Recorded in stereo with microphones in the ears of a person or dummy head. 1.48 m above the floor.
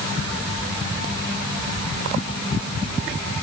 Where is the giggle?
I don't hear a giggle.